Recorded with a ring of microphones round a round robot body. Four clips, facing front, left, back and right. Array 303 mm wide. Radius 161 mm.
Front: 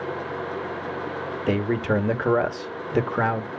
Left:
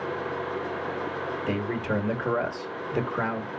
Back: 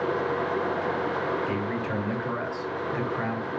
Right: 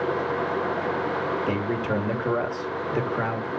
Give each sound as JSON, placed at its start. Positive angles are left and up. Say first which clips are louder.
{"t": 1.5, "sound": "a man speaking", "louder": "right 3 dB, front 5 dB", "azimuth_deg": 0, "distance_m": 1.6}